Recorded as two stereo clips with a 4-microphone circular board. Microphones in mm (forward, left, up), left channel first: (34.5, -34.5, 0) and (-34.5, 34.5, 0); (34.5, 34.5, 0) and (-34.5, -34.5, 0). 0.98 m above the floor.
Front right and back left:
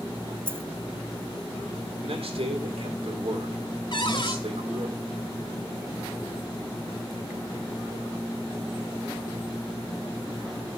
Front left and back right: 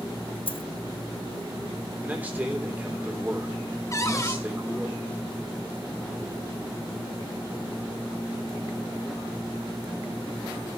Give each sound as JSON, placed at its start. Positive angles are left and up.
{"t": 0.5, "sound": "a dropped coin", "azimuth_deg": 65, "distance_m": 0.7}
{"t": 2.0, "sound": "a man speaking", "azimuth_deg": 150, "distance_m": 3.0}
{"t": 3.9, "sound": "a cupboard door", "azimuth_deg": -10, "distance_m": 1.5}